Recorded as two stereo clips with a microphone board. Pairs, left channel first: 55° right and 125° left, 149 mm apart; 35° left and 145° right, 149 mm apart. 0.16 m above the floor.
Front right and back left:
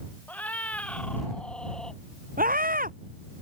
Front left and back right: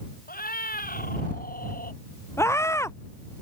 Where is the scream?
105° left.